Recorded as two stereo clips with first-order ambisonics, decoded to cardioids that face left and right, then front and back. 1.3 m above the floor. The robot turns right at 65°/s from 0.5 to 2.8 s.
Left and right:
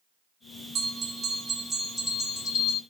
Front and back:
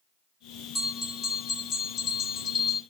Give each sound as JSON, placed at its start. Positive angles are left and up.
{"t": 0.8, "sound": "a bell", "azimuth_deg": -70, "distance_m": 0.9}